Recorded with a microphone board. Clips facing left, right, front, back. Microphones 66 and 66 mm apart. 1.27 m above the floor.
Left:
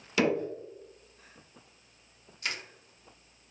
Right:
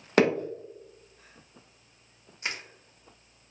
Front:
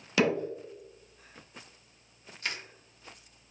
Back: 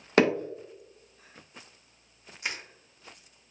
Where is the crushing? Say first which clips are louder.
Right 1 dB, back 1 dB; 125° right, 0.6 m.